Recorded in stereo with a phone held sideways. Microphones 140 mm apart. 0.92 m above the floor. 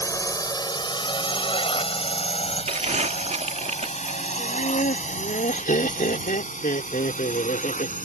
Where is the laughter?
75° left (ahead or behind).